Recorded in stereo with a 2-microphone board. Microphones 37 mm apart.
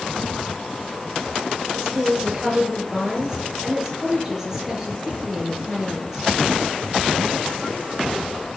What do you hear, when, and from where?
1.7 s a woman speaking: 15° right (ahead or behind), 5.5 m